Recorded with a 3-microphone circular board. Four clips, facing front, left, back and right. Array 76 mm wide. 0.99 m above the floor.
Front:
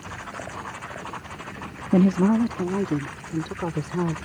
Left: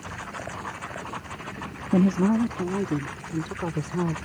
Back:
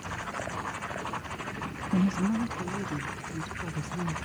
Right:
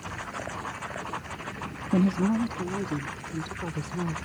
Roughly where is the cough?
No cough in this recording.